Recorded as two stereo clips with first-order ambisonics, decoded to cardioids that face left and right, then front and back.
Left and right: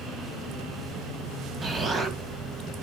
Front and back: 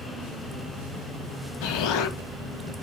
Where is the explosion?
25° right, 1.8 m.